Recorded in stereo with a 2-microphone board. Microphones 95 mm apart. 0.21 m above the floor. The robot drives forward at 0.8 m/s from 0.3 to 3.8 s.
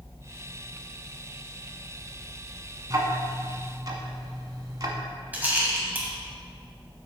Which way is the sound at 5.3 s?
20° right (ahead or behind).